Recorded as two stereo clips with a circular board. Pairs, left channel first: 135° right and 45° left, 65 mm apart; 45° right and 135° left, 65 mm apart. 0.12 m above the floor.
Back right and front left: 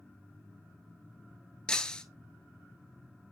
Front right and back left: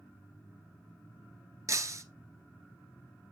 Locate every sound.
1.7 s breaking glass: 150° left, 0.7 m